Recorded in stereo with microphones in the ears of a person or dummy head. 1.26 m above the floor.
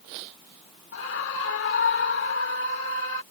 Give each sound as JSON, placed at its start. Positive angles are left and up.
{"t": 0.9, "sound": "a scream", "side_deg": 75}